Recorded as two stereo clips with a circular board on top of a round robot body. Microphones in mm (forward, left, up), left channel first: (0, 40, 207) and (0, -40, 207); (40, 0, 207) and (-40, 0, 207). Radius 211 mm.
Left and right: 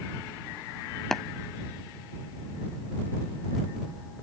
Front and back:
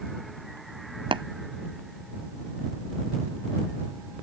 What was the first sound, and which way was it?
Tapping, 175° left.